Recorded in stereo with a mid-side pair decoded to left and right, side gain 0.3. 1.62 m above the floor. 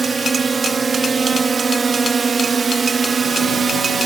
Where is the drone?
50° right; by 4.1 s 60° right.